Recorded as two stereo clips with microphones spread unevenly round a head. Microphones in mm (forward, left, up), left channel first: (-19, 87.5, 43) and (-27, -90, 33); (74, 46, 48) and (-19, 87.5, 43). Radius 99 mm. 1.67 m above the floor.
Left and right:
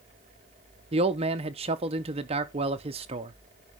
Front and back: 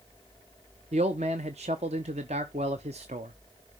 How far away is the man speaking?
About 0.8 m.